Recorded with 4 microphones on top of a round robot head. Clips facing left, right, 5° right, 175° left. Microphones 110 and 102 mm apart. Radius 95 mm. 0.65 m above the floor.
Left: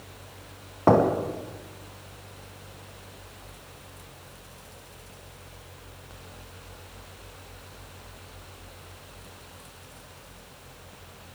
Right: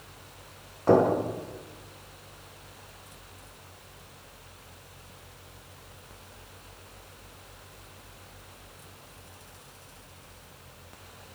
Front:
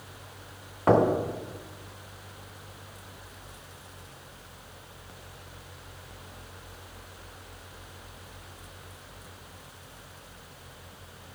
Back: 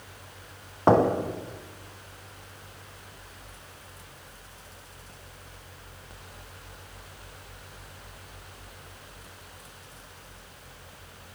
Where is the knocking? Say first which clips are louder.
Left 1 dB, back 1 dB; 115° left, 5 m.